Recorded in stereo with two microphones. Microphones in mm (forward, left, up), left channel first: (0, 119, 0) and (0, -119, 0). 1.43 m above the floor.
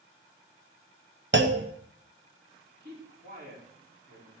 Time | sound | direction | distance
1.3 | a clunk | 55° right (ahead or behind) | 1.0 m
2.8 | a man speaking | 45° right (ahead or behind) | 4.5 m